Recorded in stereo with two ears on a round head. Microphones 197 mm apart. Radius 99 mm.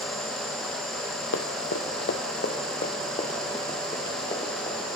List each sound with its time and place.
1.3 s running footsteps: 70° left (ahead or behind), 1.5 m; by 5.0 s 15° left (ahead or behind), 5 m